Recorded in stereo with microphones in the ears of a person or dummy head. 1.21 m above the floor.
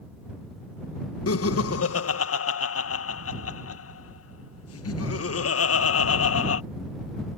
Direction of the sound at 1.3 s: 65° left (ahead or behind).